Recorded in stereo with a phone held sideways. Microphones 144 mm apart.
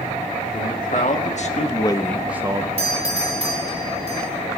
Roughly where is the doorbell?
Right.